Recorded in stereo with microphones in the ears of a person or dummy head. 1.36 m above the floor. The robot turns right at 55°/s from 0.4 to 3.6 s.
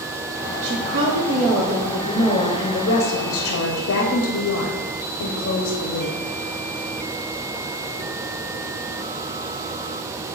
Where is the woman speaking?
75° right, 0.6 m; by 6.2 s 90° left, 0.6 m.